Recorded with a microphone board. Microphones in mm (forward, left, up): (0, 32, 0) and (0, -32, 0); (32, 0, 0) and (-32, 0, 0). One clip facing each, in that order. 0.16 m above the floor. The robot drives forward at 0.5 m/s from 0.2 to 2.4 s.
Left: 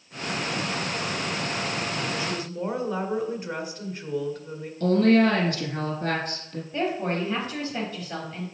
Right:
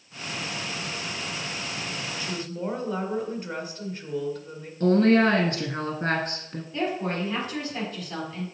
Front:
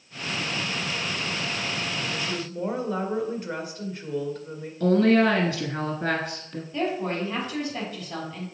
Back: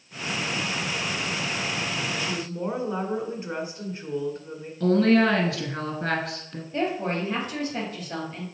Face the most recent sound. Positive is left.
turn(degrees=150)